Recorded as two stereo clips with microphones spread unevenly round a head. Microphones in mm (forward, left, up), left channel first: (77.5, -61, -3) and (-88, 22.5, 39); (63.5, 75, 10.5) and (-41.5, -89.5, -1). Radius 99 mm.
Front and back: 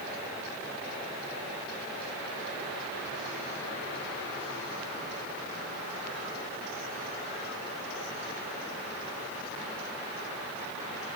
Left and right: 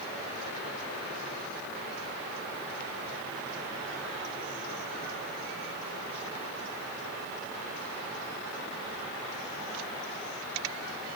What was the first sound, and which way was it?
Only background noise.